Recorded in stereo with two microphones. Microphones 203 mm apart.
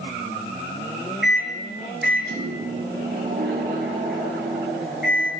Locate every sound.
1.2 s a microwave: 65° right (ahead or behind), 3 m